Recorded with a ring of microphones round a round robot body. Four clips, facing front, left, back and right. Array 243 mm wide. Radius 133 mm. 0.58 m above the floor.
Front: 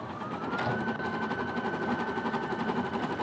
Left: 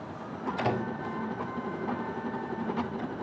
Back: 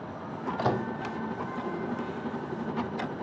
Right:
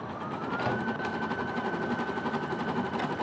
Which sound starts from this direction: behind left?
A microwave, at 0.6 s.